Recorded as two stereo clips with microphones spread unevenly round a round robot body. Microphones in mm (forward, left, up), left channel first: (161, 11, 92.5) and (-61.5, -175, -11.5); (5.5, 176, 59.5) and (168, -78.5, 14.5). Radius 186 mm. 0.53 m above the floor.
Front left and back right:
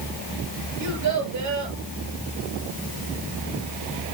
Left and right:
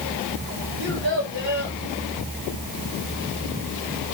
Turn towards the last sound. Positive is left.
turn(degrees=-120)